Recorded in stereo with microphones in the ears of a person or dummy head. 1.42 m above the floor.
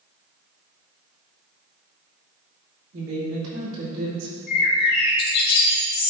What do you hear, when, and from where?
2.9 s a woman speaking: 60° right (ahead or behind), 2.5 m
4.5 s a bird: 55° left (ahead or behind), 1.8 m